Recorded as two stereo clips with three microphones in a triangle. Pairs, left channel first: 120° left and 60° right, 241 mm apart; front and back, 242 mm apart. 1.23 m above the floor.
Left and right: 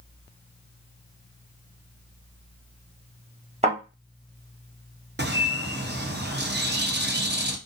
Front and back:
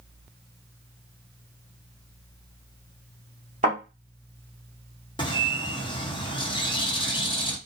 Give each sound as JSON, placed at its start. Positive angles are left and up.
{"t": 3.6, "sound": "a thud", "azimuth_deg": -125, "distance_m": 1.5}
{"t": 5.2, "sound": "a bird", "azimuth_deg": -60, "distance_m": 0.5}